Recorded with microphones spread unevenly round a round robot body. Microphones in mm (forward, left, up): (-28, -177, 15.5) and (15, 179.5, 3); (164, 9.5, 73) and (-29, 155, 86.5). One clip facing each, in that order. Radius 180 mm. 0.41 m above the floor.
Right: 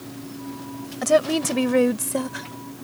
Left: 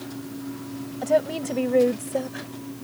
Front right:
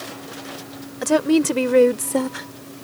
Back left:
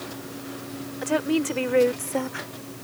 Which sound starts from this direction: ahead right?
A woman speaking, at 1.0 s.